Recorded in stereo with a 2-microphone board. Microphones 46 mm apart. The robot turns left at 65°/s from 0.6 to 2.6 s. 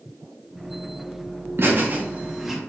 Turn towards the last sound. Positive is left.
turn(degrees=-175)